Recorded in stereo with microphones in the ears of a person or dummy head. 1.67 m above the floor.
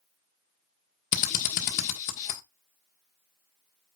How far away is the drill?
About 1.5 m.